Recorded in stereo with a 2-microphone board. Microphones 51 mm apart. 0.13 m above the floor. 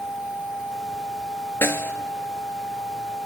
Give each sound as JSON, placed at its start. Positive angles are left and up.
{"t": 1.6, "sound": "a snare drum", "side_deg": 55, "distance_m": 0.5}